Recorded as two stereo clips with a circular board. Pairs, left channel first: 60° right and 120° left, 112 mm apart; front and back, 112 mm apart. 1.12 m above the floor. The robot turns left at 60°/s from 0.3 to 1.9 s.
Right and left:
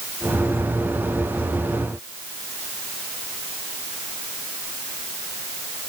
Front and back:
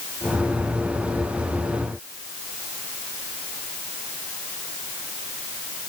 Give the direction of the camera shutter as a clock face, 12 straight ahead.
No camera shutter in this recording.